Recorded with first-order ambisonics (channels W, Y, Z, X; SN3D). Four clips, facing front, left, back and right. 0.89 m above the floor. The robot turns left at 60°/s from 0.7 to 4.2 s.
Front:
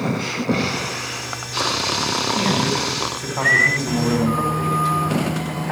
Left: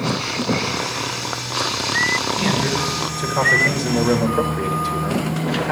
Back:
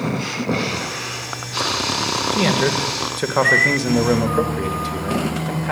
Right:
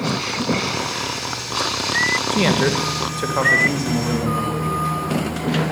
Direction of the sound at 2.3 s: 105° right.